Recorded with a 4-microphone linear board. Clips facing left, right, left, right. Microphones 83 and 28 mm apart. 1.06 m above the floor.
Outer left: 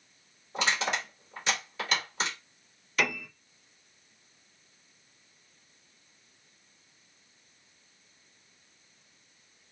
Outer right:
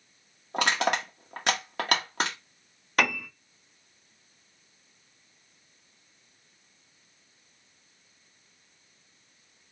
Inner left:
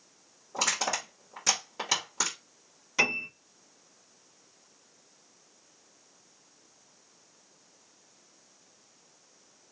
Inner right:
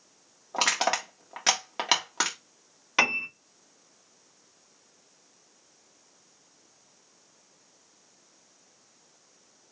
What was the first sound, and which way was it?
Crushing, 55° right (ahead or behind).